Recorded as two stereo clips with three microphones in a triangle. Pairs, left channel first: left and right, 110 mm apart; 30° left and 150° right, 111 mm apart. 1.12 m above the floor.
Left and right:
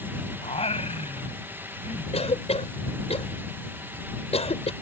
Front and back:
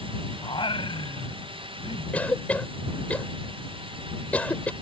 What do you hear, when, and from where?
0.4 s singing: 70° left
2.1 s a cough: 105° left